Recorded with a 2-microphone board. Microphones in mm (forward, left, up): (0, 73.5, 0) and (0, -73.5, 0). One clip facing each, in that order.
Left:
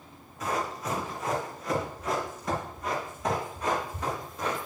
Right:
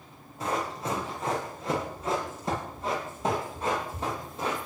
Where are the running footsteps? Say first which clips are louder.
Right 1 dB; 30° right (ahead or behind), 7 m.